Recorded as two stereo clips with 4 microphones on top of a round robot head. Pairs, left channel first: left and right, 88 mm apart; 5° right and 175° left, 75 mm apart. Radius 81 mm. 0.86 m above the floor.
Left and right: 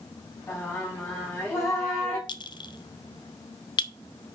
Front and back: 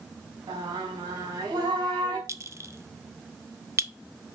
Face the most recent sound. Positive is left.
turn(degrees=125)